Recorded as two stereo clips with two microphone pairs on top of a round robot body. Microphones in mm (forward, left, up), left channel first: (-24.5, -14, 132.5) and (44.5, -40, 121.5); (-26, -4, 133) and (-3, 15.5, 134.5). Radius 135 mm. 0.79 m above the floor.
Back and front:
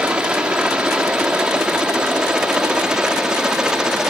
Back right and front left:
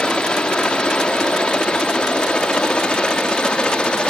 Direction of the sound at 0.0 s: 90° right.